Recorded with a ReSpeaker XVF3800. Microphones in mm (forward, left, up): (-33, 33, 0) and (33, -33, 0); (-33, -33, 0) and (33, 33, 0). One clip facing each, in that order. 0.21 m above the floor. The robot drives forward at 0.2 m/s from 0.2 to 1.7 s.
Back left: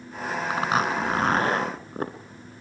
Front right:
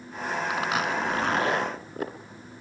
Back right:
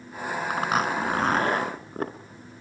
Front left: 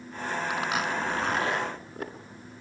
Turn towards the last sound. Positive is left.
turn(degrees=180)